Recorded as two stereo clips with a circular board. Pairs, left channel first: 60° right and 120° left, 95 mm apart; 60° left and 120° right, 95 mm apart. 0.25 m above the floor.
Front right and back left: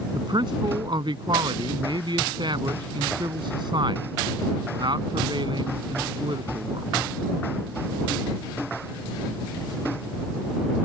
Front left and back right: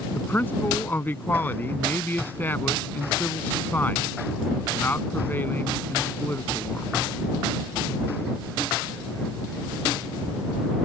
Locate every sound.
0.1 s a man speaking: 125° left